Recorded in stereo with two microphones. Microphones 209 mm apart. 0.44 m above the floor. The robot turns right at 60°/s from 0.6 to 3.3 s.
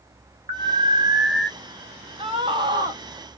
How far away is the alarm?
About 2.5 m.